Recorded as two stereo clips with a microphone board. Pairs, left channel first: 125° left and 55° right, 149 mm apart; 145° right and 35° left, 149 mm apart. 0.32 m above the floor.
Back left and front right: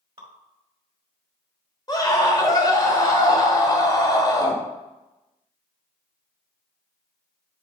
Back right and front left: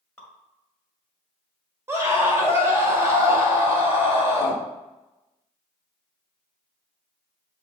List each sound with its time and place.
0.2 s dripping: 80° right, 1.7 m
1.9 s a scream: 90° left, 1.7 m